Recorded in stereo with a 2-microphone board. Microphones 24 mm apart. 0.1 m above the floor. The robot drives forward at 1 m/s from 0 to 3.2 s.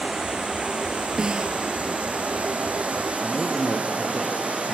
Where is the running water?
45° right (ahead or behind), 5 m; by 4.8 s 75° right (ahead or behind), 3.5 m.